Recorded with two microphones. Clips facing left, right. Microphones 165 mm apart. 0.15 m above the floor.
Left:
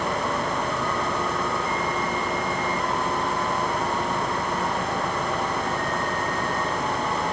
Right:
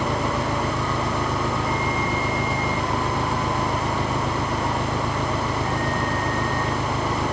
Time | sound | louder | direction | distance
0.0 | an engine running | right 2 dB | 85° right | ?